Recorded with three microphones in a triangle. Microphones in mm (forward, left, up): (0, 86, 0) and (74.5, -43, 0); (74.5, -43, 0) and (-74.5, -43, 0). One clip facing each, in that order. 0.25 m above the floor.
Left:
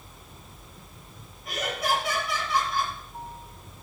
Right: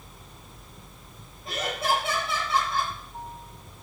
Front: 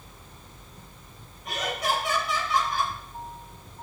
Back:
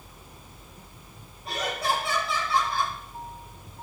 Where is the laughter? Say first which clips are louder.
Right 1 dB, even; 120° right, 6.5 m.